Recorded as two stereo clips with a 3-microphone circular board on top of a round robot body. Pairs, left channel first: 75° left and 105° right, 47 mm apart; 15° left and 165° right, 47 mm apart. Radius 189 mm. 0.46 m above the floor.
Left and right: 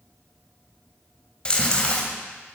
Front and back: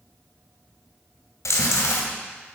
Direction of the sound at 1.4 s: 5° left.